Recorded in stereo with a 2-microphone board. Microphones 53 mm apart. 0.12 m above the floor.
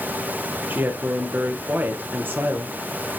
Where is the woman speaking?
40° right (ahead or behind), 2.5 m.